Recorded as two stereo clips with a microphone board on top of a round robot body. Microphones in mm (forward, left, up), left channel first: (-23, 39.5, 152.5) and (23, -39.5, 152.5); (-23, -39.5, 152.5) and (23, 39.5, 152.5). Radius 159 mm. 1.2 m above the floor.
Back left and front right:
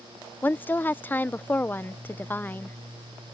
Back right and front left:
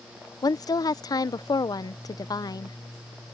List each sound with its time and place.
0.4 s a woman speaking: 170° right